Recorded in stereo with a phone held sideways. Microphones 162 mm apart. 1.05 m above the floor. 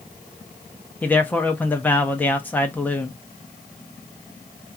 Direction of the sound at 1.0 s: 10° left (ahead or behind).